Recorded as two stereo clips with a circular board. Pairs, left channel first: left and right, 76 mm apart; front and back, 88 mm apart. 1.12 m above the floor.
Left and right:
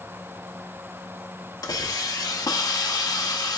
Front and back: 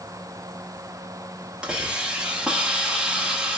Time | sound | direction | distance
1.6 | a hiss | 100° left | 0.7 m